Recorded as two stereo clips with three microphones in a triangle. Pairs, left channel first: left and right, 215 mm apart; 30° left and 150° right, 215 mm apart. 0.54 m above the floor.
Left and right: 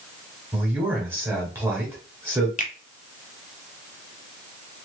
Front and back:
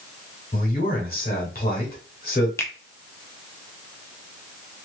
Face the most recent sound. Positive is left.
turn(degrees=100)